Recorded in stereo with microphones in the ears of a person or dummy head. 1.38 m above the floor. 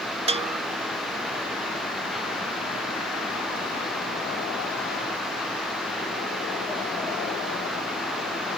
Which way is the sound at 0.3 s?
25° right (ahead or behind).